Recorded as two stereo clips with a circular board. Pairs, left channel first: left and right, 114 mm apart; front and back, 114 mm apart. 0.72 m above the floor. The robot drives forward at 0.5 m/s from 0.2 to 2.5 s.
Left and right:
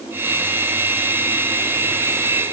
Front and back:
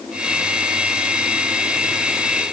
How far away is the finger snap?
No finger snap in this recording.